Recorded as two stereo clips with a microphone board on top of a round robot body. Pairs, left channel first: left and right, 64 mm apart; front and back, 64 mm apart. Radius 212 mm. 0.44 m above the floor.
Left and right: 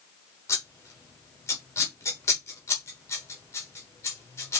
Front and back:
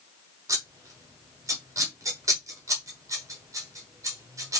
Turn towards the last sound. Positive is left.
turn(degrees=140)